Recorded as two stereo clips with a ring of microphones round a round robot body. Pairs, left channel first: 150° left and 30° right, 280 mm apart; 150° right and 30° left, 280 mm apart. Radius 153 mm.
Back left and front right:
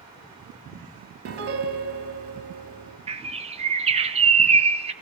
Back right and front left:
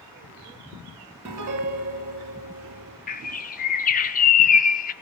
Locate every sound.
1.2 s a piano: 5° left, 2.5 m
3.1 s a bird: 95° right, 1.0 m